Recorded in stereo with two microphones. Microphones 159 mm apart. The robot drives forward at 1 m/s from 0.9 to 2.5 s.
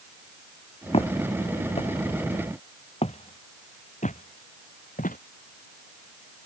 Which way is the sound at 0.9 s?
40° left (ahead or behind).